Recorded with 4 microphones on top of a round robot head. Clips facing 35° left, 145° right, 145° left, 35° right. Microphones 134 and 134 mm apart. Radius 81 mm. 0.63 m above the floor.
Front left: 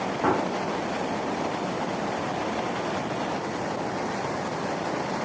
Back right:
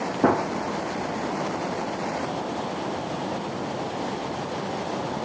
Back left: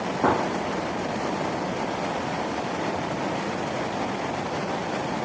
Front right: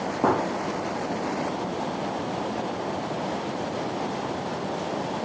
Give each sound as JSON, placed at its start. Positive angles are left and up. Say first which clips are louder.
{"t": 0.2, "sound": "a gunshot", "louder": "back right 4 dB, even", "azimuth_deg": -115, "distance_m": 0.5}